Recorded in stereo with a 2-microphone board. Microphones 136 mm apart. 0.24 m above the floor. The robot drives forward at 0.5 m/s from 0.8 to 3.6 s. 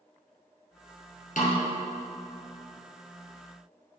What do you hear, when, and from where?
1.4 s a snare drum: 75° left (ahead or behind), 2.5 m